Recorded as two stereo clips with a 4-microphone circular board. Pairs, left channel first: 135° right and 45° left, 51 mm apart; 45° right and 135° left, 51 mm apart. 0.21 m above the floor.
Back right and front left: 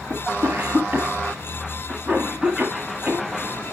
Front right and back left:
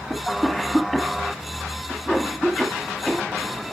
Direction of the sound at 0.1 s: 30° left.